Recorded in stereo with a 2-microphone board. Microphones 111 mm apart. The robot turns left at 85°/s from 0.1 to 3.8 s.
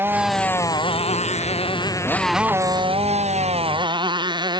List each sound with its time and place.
0.0 s a motorcycle: 20° right (ahead or behind); by 4.6 s 40° right (ahead or behind)